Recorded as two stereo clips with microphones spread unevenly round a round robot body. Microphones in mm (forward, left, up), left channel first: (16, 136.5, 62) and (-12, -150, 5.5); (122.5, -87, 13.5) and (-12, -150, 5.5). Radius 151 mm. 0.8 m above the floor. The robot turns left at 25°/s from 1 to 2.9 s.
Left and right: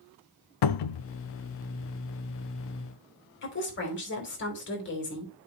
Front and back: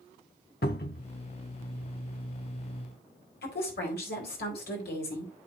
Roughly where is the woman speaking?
Ahead left.